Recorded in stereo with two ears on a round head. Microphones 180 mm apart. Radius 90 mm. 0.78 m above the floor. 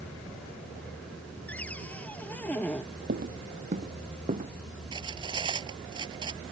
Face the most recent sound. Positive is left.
turn(degrees=-25)  # may be behind; listen again after turning